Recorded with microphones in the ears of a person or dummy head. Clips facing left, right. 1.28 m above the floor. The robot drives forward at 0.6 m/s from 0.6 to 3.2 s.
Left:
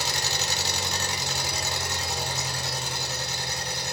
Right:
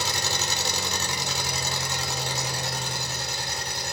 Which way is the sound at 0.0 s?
80° right.